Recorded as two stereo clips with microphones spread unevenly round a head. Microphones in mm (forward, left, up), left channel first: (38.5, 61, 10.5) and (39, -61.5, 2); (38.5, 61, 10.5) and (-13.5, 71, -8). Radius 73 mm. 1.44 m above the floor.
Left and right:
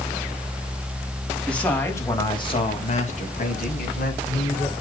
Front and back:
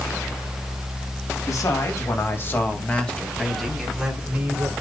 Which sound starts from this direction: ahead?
A man speaking, at 1.5 s.